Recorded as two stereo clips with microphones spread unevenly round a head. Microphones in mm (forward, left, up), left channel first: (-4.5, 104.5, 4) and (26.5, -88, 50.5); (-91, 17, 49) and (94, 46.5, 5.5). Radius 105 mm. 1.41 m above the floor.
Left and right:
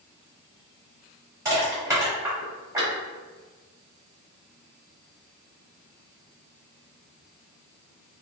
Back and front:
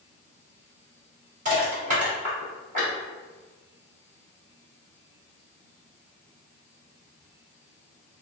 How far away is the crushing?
About 1.4 m.